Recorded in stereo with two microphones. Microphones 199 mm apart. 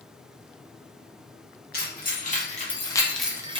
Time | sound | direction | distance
1.7 | keys jangling | 50° left (ahead or behind) | 1.1 m